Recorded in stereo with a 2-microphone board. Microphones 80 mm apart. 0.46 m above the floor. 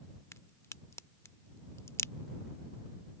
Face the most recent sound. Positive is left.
turn(degrees=35)  # may be behind; listen again after turning